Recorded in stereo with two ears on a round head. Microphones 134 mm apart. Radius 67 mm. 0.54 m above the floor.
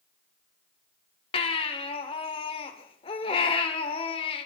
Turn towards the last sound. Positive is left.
turn(degrees=35)  # may be behind; listen again after turning